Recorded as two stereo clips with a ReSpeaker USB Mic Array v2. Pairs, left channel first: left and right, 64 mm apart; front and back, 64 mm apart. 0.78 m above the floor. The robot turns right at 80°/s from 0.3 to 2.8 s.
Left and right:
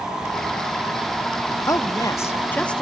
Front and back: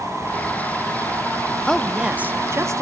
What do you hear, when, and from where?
1.7 s a woman speaking: 75° left, 1.2 m; by 2.8 s 165° left, 1.2 m